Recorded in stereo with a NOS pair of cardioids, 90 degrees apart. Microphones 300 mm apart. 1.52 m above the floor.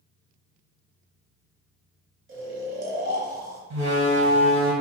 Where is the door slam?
60° right, 1.2 m.